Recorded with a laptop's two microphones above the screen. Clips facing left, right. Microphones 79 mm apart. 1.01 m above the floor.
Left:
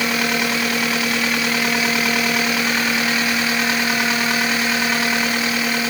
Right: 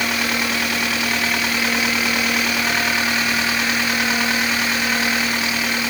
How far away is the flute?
I don't hear a flute.